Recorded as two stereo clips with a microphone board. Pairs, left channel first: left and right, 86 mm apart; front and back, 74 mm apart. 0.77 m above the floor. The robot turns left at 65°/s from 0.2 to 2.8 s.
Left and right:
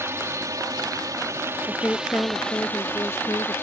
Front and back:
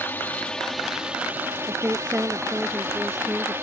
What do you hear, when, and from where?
0.0 s a drone: 50° right; by 3.6 s 140° left
1.7 s a woman speaking: 170° left; by 3.5 s 95° left